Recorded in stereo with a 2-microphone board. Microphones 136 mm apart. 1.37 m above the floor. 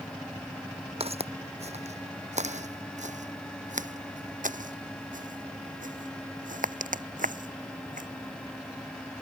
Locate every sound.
1.0 s footsteps: 45° right (ahead or behind); by 8.1 s 70° right (ahead or behind)